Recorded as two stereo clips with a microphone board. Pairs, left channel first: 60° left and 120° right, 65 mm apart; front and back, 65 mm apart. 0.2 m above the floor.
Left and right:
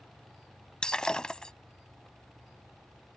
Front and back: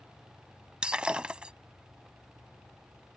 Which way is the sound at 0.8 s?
125° left.